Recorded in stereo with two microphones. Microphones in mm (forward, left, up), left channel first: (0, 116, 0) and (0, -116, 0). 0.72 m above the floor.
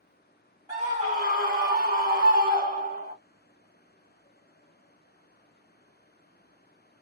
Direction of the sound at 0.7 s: 30° right (ahead or behind).